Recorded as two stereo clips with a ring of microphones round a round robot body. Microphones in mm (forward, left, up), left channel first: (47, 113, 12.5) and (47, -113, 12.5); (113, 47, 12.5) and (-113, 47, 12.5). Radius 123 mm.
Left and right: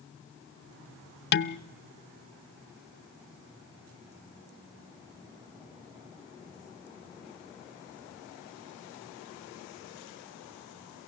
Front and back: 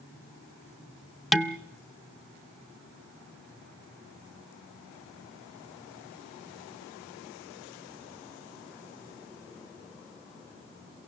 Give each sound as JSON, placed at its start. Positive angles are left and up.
{"t": 1.3, "sound": "dishes clattering", "azimuth_deg": 90, "distance_m": 0.6}